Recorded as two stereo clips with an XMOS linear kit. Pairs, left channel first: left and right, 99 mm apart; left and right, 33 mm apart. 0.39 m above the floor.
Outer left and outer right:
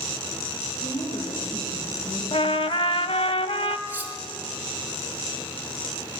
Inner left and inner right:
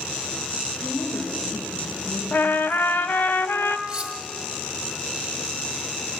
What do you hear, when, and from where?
0.8 s a woman speaking: 65° left (ahead or behind), 6.5 m; by 3.0 s 75° left (ahead or behind), 7.5 m
2.3 s a trumpet: 75° left (ahead or behind), 0.5 m
3.9 s cutlery clinking: 20° right (ahead or behind), 1.3 m